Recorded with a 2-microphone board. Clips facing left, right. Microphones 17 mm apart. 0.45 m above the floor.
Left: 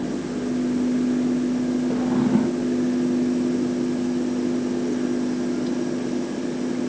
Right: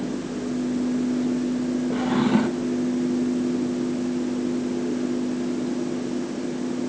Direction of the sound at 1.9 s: 55° right (ahead or behind).